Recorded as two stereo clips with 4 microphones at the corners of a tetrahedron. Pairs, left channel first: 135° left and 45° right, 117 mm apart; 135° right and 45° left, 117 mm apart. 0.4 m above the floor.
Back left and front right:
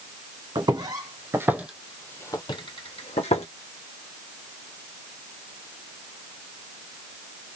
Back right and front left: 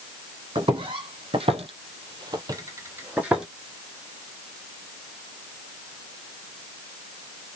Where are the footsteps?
5° left, 1.1 m; by 3.5 s 125° left, 1.0 m.